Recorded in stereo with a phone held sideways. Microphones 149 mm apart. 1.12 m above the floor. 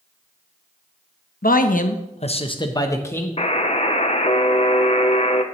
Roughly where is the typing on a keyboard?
I don't hear typing on a keyboard.